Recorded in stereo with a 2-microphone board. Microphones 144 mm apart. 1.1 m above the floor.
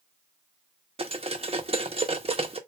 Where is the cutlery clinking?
45° right (ahead or behind), 0.7 m.